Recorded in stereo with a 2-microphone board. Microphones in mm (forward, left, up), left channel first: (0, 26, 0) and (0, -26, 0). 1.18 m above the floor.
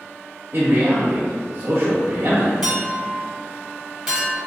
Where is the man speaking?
55° right (ahead or behind), 0.7 m.